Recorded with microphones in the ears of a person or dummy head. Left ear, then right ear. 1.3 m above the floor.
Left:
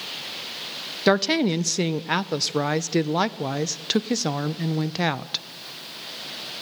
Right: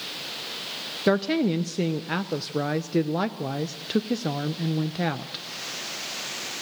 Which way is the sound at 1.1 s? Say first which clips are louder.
Left 3 dB; 25° left (ahead or behind).